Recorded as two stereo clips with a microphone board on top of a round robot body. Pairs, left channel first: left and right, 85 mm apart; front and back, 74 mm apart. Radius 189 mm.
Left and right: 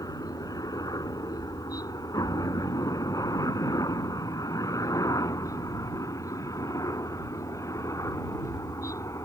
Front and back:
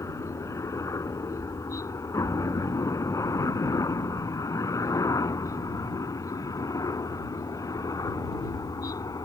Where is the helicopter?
45° left; by 9.2 s 40° left.